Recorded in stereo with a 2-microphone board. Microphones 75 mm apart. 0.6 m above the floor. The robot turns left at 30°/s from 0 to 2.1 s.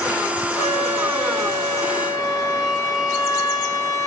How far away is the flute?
About 2.5 m.